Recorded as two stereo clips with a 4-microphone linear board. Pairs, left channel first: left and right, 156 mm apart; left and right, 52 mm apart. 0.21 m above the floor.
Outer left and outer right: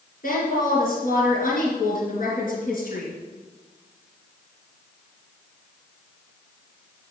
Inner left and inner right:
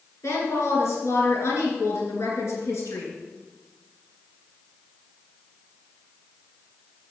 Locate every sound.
0.2 s a woman speaking: 65° left (ahead or behind), 3 m